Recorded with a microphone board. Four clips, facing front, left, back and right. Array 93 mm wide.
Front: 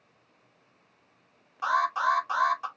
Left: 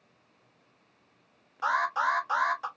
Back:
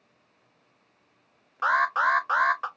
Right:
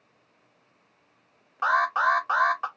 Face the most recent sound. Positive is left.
turn(degrees=-130)